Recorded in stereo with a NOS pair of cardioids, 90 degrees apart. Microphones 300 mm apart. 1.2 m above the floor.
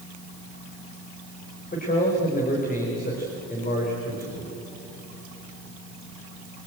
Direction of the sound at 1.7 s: 30° left.